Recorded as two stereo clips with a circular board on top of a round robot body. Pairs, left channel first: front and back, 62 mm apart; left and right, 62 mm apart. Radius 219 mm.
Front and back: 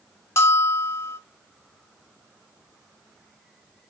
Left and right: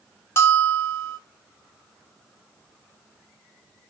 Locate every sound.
0.4 s a bell: 45° left, 2.5 m